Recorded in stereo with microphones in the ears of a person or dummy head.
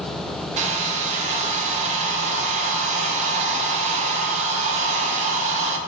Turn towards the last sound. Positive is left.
turn(degrees=-40)  # may be behind; listen again after turning